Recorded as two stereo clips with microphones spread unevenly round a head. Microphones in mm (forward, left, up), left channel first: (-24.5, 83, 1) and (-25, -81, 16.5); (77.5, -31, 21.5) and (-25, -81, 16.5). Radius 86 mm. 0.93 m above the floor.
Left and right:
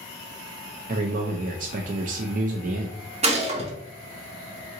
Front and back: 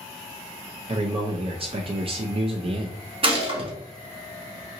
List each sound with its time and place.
0.9 s a man speaking: 125° right, 0.5 m
3.2 s a gunshot: 140° right, 1.5 m